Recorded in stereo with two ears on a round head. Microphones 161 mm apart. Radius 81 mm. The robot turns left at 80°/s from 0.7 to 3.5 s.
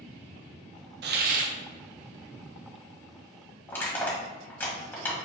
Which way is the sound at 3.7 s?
10° left (ahead or behind).